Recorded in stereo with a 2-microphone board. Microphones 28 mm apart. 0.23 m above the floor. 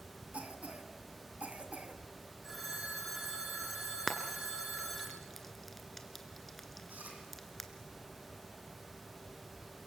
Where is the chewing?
80° right, 5.5 m.